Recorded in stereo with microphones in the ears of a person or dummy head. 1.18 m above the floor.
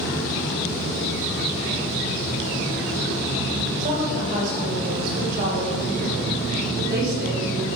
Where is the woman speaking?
45° right (ahead or behind), 5.5 m; by 7.7 s 55° right (ahead or behind), 3.5 m.